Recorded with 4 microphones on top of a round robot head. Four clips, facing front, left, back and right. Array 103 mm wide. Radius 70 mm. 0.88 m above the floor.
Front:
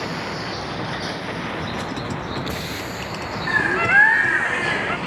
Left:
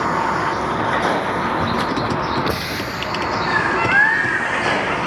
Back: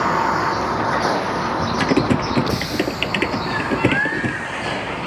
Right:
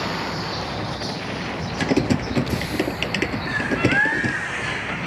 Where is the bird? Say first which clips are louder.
Left 3 dB, front 3 dB; 35° left.